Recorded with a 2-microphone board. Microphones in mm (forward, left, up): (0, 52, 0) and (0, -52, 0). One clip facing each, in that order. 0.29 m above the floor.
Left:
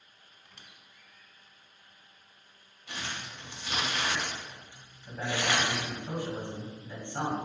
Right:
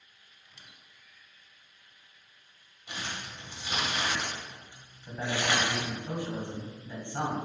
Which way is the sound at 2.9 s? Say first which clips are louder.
Even; 15° right (ahead or behind).